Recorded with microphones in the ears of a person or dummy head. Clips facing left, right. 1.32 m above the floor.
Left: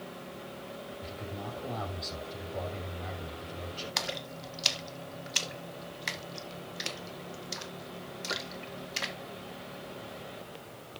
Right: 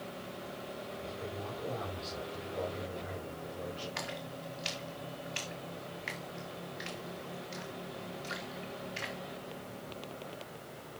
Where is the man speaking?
60° left (ahead or behind), 7 m.